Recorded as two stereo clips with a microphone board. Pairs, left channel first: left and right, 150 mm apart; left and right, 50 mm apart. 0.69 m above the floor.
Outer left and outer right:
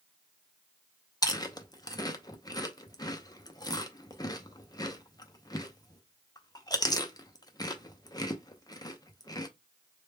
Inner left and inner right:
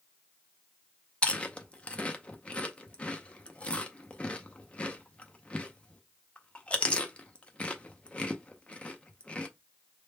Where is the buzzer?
No buzzer in this recording.